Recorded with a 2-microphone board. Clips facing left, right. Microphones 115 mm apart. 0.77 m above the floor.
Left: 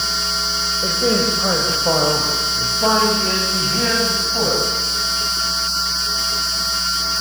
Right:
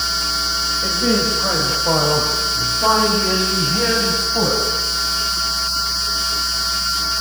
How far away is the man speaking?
About 4 m.